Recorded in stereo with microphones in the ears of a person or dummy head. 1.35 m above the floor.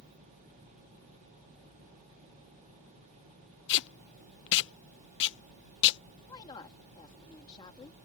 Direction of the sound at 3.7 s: 65° left (ahead or behind).